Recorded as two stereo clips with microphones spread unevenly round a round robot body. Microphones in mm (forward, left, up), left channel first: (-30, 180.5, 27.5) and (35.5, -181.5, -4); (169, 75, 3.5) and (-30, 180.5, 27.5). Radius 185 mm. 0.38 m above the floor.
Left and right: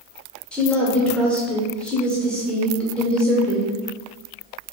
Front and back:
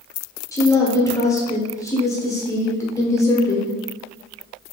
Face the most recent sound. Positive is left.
turn(degrees=5)